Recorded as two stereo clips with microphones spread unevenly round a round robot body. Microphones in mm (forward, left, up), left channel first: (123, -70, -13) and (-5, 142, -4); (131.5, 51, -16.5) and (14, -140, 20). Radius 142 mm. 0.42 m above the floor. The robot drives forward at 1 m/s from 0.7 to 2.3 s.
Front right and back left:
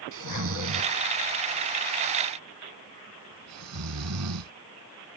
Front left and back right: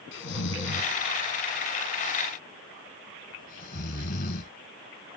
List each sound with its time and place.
0.1 s snoring: 100° left; by 4.5 s 120° left